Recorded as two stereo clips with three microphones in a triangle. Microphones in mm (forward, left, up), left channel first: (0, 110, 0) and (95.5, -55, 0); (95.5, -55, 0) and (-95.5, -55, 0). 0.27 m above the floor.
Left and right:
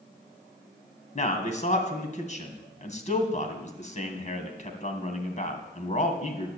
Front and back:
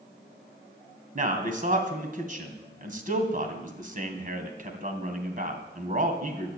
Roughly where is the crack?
No crack in this recording.